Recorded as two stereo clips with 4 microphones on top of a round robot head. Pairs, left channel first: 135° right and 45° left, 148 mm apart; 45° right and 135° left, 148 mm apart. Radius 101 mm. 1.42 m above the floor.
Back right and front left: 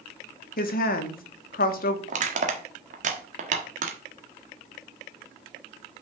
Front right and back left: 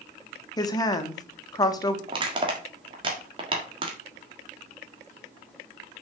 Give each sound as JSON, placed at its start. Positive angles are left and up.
{"t": 0.6, "sound": "a woman speaking", "azimuth_deg": -110, "distance_m": 1.7}
{"t": 2.1, "sound": "crushing", "azimuth_deg": 75, "distance_m": 1.4}